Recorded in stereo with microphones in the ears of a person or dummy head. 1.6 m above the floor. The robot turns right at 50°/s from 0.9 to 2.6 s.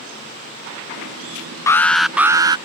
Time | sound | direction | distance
1.7 | an alarm | 155° left | ?